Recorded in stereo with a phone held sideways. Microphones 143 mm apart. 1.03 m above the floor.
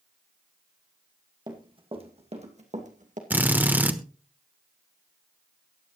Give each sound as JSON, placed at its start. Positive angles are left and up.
{"t": 1.5, "sound": "running footsteps", "side_deg": -35, "distance_m": 2.5}
{"t": 3.3, "sound": "a drill", "side_deg": -10, "distance_m": 1.1}